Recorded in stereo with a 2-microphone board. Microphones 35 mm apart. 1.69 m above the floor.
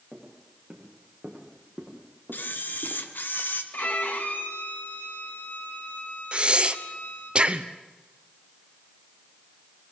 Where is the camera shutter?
75° left (ahead or behind), 1.7 m.